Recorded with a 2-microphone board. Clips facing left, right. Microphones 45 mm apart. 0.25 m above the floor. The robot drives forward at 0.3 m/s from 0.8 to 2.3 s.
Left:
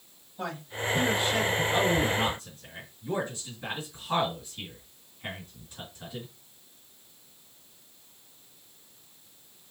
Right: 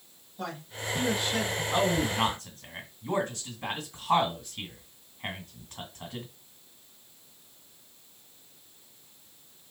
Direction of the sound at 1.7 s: 50° right (ahead or behind).